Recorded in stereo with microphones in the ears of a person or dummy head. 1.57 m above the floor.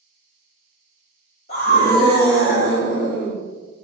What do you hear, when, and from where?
1.5 s a scream: 45° left (ahead or behind), 1.2 m; by 3.4 s 55° left (ahead or behind), 1.2 m